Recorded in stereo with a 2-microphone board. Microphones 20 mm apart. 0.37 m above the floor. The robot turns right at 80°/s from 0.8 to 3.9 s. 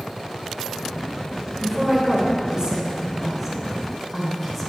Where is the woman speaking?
165° right, 1.1 m; by 4.7 s 15° left, 1.1 m.